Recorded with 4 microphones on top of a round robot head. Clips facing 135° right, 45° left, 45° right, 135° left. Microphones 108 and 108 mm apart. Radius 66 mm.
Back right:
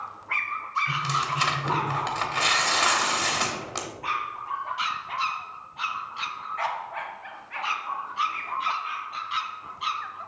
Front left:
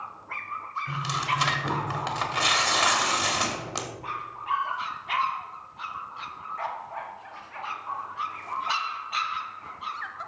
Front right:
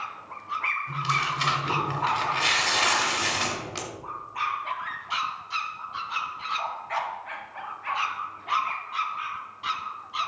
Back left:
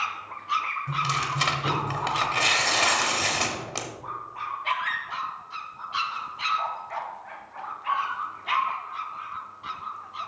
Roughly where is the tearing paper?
Behind left.